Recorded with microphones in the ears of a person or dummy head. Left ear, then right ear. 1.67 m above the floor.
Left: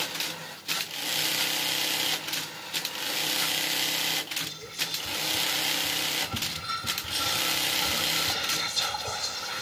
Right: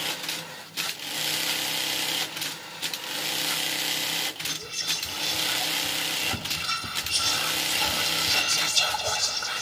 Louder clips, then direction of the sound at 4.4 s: Right 4 dB; 55° right (ahead or behind).